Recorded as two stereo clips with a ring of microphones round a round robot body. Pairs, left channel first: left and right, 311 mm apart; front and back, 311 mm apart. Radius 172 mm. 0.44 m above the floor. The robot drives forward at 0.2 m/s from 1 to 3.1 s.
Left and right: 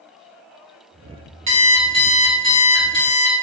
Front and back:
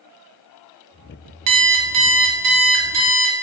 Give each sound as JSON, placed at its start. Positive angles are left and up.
{"t": 1.5, "sound": "an alarm clock", "azimuth_deg": -160, "distance_m": 0.5}